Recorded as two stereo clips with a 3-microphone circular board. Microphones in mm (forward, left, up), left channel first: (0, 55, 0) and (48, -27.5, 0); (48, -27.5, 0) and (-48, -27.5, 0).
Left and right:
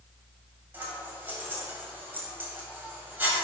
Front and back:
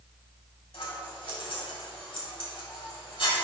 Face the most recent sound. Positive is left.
turn(degrees=10)